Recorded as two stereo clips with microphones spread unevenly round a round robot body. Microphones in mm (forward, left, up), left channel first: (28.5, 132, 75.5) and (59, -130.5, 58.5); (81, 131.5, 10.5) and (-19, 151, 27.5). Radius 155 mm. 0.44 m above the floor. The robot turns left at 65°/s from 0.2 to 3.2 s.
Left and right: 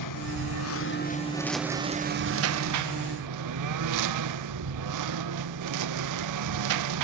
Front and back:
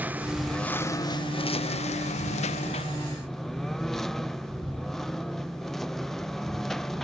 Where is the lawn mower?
95° left; by 7.0 s 100° right.